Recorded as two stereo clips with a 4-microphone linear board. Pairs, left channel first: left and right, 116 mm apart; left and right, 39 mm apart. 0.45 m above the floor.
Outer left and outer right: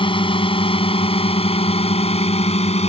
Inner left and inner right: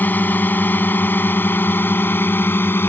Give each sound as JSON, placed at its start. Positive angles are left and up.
{"t": 0.0, "sound": "a drone", "side_deg": 50}